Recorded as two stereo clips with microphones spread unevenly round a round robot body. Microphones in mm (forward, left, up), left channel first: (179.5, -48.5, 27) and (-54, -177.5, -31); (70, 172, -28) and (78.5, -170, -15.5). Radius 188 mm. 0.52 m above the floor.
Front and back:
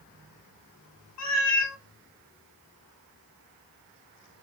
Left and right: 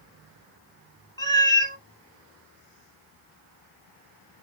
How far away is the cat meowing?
About 0.8 m.